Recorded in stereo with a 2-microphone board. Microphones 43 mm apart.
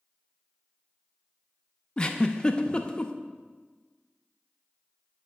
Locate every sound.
2.0 s a giggle: 20° left (ahead or behind), 0.5 m